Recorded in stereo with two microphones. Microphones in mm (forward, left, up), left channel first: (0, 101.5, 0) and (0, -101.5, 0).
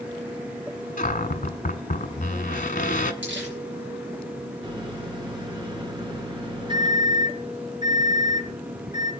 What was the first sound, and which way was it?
A cupboard door, 45° left (ahead or behind).